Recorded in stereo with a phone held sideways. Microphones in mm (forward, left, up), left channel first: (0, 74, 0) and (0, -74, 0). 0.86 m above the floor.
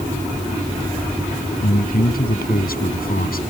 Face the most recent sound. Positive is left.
turn(degrees=80)